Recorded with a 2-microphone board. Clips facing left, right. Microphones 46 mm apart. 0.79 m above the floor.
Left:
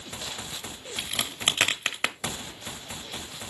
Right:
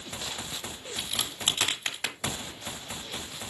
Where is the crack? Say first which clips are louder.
Left 3 dB; 45° left (ahead or behind), 1.0 m.